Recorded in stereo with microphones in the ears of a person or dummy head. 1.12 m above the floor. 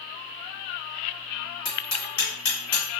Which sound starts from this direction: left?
Hammering, at 1.6 s.